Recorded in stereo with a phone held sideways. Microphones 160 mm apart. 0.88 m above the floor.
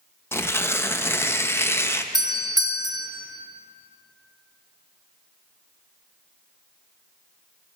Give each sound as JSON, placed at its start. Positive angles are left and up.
{"t": 0.3, "sound": "tearing paper", "side_deg": 15, "distance_m": 0.7}
{"t": 2.1, "sound": "a doorbell", "side_deg": -25, "distance_m": 0.9}